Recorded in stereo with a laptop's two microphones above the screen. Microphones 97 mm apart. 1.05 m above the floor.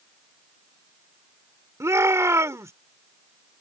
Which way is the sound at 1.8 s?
30° right (ahead or behind).